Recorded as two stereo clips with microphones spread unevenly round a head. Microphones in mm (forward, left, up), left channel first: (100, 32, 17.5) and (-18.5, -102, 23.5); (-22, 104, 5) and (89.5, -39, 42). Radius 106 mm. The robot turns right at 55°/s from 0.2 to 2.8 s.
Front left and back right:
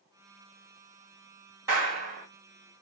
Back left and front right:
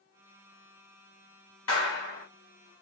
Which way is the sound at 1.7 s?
155° left.